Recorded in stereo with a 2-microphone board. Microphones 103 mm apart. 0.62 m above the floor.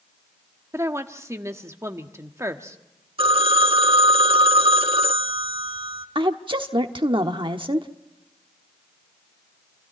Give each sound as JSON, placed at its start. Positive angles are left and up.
{"t": 0.7, "sound": "a woman speaking", "side_deg": -25, "distance_m": 1.4}
{"t": 3.2, "sound": "a phone ringing", "side_deg": -60, "distance_m": 1.3}
{"t": 6.2, "sound": "a woman speaking", "side_deg": -55, "distance_m": 1.1}